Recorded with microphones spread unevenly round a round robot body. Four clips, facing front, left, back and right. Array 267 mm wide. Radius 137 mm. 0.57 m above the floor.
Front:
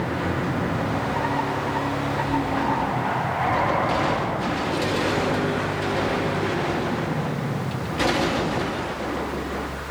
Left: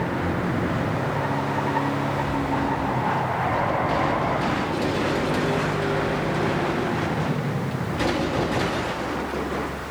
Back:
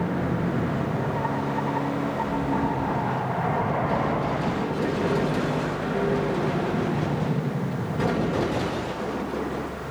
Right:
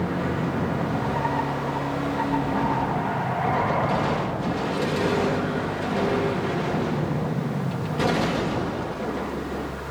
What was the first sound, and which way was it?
Only background noise.